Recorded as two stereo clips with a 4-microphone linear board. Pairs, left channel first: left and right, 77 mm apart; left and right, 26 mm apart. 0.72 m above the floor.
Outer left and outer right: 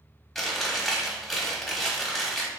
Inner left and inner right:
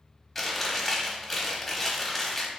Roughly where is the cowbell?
I don't hear a cowbell.